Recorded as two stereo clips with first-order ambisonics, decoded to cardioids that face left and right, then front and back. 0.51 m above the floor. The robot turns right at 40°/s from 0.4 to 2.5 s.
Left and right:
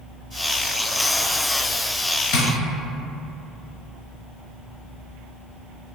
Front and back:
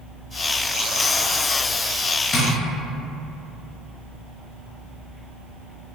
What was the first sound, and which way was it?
Tapping, 60° left.